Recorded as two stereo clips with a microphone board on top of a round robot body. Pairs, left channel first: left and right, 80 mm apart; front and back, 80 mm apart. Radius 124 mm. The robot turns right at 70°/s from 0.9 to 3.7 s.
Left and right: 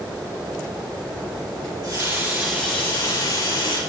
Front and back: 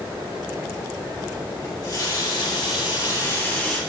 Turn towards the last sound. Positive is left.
turn(degrees=85)